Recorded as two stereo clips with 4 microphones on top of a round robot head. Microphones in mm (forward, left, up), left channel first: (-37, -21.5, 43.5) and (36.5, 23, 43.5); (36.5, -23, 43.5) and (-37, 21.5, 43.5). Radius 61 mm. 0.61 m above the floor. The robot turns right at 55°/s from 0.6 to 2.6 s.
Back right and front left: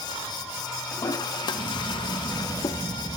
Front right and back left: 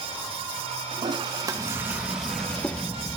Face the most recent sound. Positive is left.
turn(degrees=-105)